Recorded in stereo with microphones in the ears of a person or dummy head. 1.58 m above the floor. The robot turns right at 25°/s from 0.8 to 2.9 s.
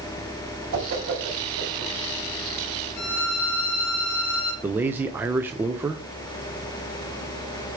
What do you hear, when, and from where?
0.7 s a whoosh: 75° right (ahead or behind), 4 m; by 1.9 s 70° right (ahead or behind), 4 m
3.0 s a violin: 50° left (ahead or behind), 3 m
4.6 s a man speaking: 10° right (ahead or behind), 0.5 m